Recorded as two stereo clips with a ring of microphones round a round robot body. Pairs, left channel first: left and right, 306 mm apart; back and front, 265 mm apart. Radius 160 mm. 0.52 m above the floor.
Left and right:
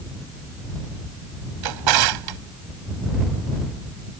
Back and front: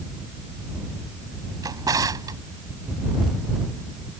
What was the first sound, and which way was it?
A drawer, 80° right.